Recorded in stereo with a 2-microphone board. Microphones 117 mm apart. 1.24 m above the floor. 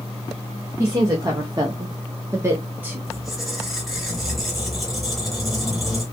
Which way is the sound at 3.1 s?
Centre (ahead or behind).